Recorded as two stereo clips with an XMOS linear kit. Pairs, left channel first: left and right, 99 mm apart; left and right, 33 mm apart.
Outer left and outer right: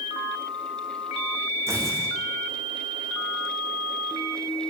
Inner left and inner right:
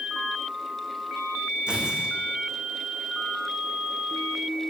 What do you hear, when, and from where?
1.7 s tearing paper: 30° right (ahead or behind), 4.5 m